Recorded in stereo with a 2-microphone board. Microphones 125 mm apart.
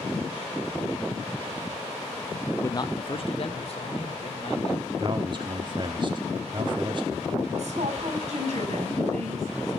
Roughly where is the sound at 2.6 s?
Centre.